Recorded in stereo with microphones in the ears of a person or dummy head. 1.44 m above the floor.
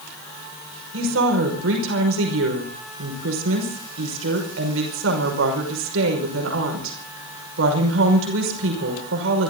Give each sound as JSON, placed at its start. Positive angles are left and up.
{"t": 0.9, "sound": "a woman speaking", "side_deg": -80, "distance_m": 5.5}